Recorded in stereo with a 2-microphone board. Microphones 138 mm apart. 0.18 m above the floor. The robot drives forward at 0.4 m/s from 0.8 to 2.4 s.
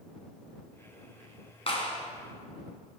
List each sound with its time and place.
1.7 s a clap: 45° left (ahead or behind), 1.8 m